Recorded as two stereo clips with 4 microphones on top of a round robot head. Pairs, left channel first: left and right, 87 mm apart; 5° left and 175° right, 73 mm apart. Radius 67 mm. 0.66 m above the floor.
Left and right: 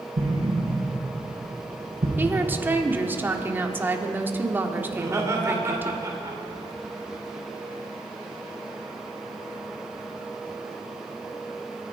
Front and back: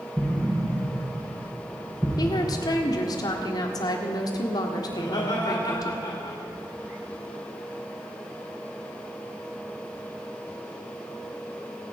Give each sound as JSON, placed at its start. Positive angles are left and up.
{"t": 0.2, "sound": "an explosion", "azimuth_deg": -85, "distance_m": 3.5}
{"t": 2.2, "sound": "a woman speaking", "azimuth_deg": -25, "distance_m": 1.7}
{"t": 4.9, "sound": "laughter", "azimuth_deg": -40, "distance_m": 2.5}